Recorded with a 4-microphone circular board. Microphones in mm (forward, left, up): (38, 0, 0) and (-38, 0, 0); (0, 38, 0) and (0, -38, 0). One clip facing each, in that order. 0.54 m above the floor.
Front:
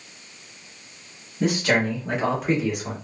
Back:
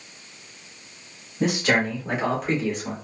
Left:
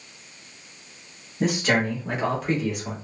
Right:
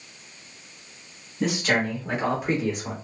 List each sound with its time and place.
1.4 s a man speaking: 125° left, 1.4 m; by 2.9 s 60° right, 1.2 m